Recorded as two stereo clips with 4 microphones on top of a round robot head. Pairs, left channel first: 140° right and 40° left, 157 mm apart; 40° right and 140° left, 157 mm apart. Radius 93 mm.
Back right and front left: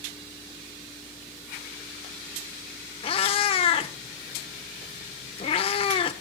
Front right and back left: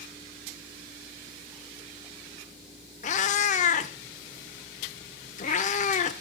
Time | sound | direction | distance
3.0 | a cat meowing | 85° right | 0.9 m